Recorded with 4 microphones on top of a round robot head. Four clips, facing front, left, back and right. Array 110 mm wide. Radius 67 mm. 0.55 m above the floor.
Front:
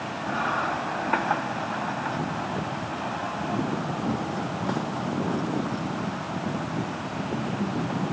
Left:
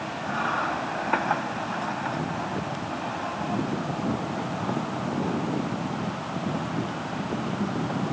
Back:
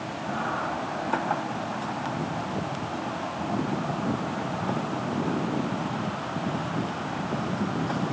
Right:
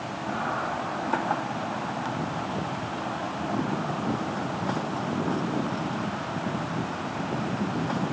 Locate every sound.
Only background noise.